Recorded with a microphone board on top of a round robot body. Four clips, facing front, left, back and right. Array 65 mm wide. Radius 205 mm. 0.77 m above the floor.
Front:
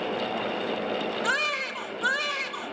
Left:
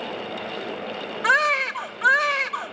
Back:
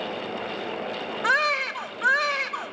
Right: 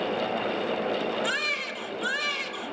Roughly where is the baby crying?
Behind left.